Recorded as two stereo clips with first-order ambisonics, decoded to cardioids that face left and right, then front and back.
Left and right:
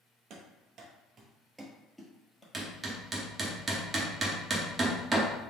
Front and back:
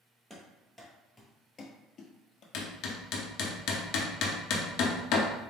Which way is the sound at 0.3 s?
100° right.